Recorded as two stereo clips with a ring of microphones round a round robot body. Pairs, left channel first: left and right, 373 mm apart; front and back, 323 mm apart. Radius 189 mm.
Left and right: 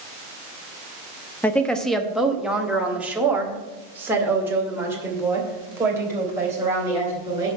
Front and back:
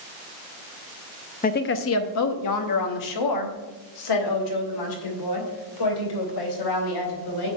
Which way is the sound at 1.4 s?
10° left.